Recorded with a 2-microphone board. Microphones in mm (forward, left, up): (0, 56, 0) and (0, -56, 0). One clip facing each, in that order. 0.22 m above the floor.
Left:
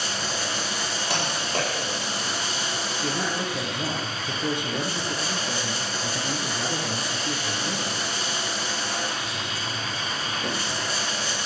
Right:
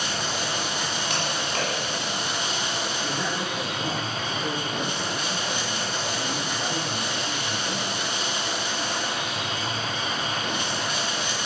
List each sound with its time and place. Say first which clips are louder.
0.0 s running water: right 1 dB; 35° left (ahead or behind), 3 m
1.1 s typing on a keyboard: left 3 dB; 35° left (ahead or behind), 7.5 m
3.0 s a man speaking: left 4 dB; 65° left (ahead or behind), 3 m